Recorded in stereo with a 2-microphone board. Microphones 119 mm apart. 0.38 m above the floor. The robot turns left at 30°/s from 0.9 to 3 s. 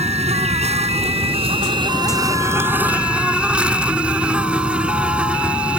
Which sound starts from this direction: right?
An insect, at 0.0 s.